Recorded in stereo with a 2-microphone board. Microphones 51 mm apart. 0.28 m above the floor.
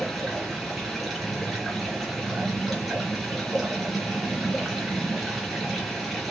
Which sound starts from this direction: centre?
Running water, at 0.0 s.